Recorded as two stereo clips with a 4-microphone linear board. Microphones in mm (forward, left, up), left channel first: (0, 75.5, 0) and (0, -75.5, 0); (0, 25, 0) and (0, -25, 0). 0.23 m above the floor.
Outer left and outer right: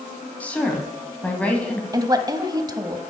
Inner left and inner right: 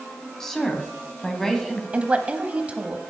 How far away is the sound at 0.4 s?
About 1.9 m.